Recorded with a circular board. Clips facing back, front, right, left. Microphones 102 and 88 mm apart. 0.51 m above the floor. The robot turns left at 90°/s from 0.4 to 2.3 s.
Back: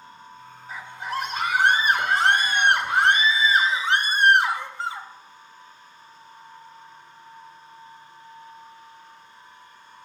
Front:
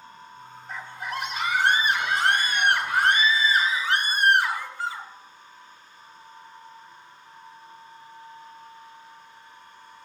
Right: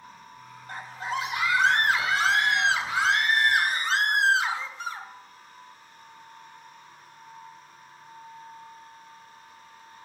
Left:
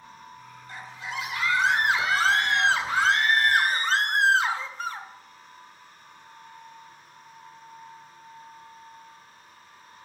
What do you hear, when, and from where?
0.7 s a scream: 95° right, 2 m; by 5.1 s 120° left, 2 m